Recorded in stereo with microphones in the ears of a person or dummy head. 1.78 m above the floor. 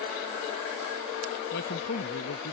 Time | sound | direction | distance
1.5 | a man speaking | 60° left (ahead or behind) | ?